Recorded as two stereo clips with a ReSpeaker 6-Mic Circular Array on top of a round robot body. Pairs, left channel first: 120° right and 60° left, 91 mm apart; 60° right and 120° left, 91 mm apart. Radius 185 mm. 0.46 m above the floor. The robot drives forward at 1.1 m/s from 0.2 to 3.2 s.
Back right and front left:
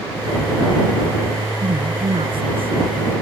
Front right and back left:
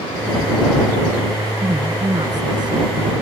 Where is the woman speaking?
70° left; by 3.0 s 80° left.